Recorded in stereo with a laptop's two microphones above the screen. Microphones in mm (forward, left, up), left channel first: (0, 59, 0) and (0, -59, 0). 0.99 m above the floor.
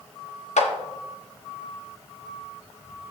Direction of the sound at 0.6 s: 85° left.